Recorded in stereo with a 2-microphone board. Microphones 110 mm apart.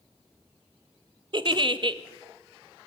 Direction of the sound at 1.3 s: 50° right (ahead or behind).